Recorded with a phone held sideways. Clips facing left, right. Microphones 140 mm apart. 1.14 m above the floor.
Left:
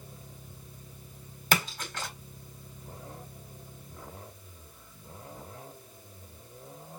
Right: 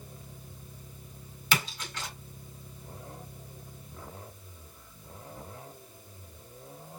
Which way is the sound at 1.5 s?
50° left (ahead or behind).